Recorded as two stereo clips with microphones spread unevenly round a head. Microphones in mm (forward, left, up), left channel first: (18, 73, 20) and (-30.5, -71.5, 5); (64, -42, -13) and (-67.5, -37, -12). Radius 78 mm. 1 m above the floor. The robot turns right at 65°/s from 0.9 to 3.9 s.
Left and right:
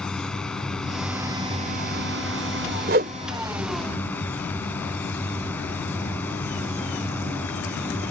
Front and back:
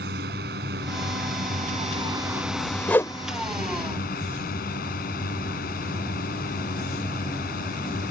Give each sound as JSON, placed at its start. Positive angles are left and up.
{"t": 0.0, "sound": "a drone", "azimuth_deg": 155}
{"t": 2.9, "sound": "a whoosh", "azimuth_deg": -80}